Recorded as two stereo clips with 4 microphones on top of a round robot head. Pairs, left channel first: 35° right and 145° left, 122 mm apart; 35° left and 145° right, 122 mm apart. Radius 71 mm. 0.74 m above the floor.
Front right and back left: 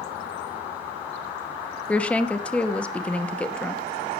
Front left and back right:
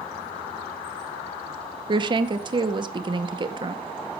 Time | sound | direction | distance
1.9 | a woman speaking | 115° right | 1.1 m